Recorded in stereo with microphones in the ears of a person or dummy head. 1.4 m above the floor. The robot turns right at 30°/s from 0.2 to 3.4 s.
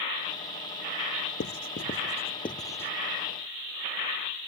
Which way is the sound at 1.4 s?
60° left (ahead or behind).